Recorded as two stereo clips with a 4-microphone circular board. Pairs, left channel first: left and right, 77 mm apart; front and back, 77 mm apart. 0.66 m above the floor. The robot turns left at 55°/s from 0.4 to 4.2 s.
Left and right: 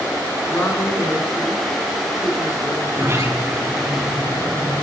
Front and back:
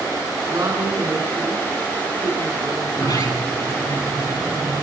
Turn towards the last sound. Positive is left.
turn(degrees=-100)